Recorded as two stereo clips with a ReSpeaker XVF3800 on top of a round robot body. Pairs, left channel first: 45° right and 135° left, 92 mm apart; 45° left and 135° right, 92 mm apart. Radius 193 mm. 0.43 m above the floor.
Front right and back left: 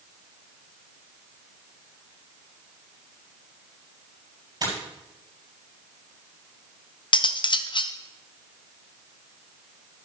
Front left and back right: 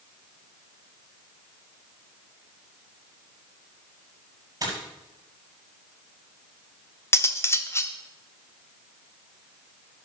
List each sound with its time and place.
4.6 s a dropped coin: straight behind, 6.5 m
7.1 s cutlery clinking: 15° right, 0.8 m